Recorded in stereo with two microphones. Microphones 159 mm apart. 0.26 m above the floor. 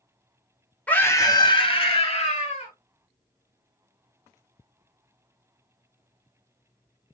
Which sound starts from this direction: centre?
A scream, at 0.9 s.